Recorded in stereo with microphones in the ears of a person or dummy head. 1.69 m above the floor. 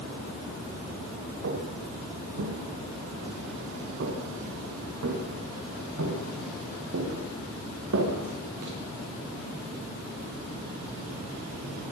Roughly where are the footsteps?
Right.